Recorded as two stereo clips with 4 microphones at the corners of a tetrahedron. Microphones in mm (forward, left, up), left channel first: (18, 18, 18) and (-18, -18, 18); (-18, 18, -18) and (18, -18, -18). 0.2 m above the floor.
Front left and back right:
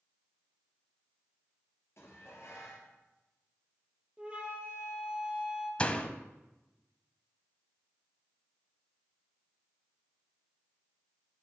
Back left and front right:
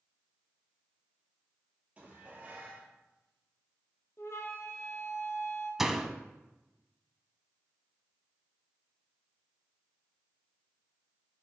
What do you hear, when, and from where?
2.0 s dishes clattering: 15° left, 3 m
4.2 s a flute: 160° left, 1.9 m
5.8 s a door slam: 25° left, 0.7 m